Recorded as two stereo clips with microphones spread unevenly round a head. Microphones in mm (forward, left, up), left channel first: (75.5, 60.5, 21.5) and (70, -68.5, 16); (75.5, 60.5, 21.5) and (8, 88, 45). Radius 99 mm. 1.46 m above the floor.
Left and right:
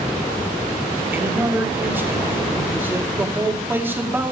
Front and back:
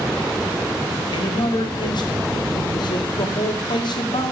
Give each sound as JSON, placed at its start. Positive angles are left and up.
{"t": 1.1, "sound": "a man speaking", "azimuth_deg": -20, "distance_m": 2.0}